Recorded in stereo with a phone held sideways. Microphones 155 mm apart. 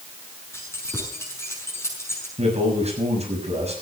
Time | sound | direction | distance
0.5 | keys jangling | 15° left (ahead or behind) | 6.5 m
2.4 | a man speaking | 45° right (ahead or behind) | 6.5 m